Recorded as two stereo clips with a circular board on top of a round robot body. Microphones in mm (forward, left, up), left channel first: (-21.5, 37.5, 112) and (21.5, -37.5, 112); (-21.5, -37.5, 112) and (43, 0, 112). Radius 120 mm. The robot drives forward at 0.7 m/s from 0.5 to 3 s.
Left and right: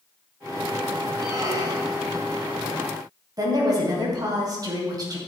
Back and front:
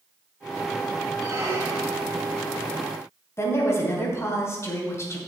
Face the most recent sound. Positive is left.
turn(degrees=-100)